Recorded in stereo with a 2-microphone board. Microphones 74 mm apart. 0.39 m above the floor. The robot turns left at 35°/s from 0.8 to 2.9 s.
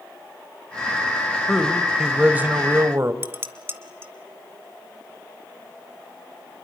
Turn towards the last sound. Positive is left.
turn(degrees=-30)  # may be behind; listen again after turning